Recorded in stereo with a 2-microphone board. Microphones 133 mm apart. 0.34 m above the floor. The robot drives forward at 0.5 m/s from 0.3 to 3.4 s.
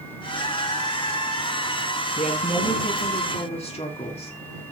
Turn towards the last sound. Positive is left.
turn(degrees=50)  # may be behind; listen again after turning